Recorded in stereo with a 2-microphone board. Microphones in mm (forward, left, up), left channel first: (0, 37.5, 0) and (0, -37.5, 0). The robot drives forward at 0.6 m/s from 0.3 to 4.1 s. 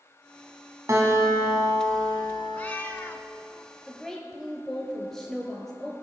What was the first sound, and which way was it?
A guitar, 40° right (ahead or behind).